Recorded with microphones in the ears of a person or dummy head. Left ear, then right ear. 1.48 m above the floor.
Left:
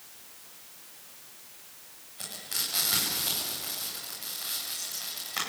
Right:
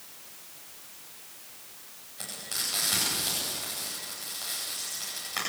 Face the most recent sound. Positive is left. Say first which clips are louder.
# even
turn(degrees=5)  # may be behind; listen again after turning